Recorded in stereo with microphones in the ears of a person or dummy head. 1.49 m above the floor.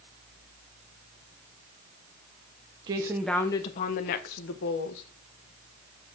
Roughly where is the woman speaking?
Right.